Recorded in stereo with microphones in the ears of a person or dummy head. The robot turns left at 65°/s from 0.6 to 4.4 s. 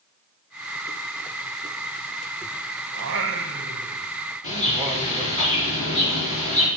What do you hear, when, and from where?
2.9 s singing: 70° right, 0.9 m; by 5.4 s 165° right, 0.9 m
4.4 s a bird: 40° left (ahead or behind), 3.5 m